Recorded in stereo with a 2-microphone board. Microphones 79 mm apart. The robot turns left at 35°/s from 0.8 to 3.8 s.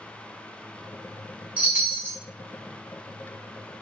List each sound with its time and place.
1.6 s a chime: 15° right (ahead or behind), 0.8 m; by 2.2 s 30° right (ahead or behind), 0.8 m